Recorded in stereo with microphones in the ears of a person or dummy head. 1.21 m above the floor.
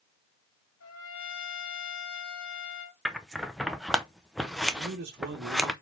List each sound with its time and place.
0.8 s a trumpet: 70° left (ahead or behind), 1.8 m
3.0 s scissors: centre (ahead or behind), 0.6 m
4.7 s a man speaking: 50° right (ahead or behind), 1.1 m